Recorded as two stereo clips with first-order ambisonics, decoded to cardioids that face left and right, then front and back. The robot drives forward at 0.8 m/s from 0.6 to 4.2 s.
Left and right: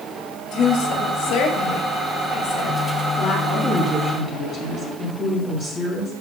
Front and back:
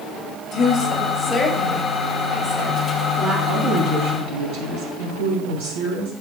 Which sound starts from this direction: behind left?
A woman speaking, at 3.5 s.